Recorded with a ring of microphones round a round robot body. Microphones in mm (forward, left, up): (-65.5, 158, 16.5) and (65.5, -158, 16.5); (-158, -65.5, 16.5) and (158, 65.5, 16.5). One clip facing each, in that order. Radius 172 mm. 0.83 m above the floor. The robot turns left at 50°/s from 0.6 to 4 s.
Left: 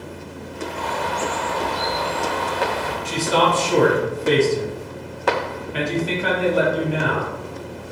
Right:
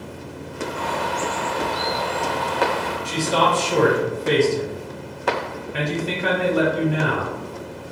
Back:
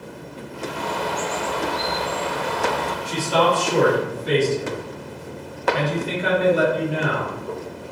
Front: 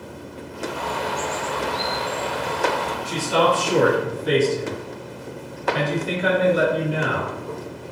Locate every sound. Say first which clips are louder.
0.8 s a bird: left 1 dB, back 3 dB; 95° right, 1.4 m; by 3.0 s 155° left, 1.4 m
3.0 s a man speaking: left 2 dB, even; 110° left, 1.8 m; by 7.3 s 60° left, 1.8 m